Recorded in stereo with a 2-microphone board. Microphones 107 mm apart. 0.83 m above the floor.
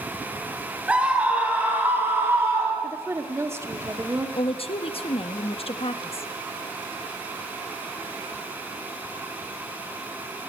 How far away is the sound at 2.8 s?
About 1.5 m.